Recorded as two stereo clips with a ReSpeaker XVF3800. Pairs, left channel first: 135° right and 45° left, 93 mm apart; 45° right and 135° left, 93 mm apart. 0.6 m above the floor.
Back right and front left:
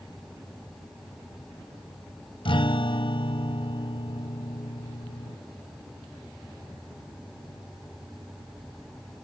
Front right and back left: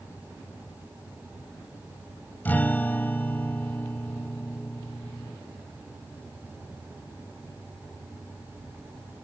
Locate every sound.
2.5 s a guitar: 115° right